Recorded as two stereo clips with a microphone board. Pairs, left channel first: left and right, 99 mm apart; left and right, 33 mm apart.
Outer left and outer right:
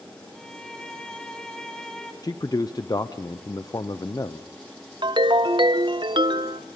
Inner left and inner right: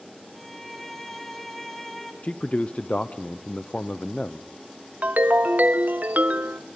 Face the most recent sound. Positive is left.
turn(degrees=-55)  # may be behind; listen again after turning